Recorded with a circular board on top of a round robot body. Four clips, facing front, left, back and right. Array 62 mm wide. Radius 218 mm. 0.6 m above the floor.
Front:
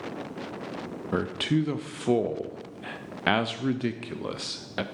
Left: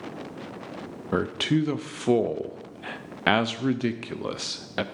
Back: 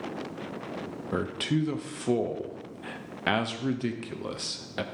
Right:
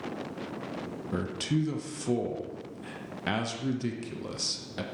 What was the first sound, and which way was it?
A man speaking, 70° left.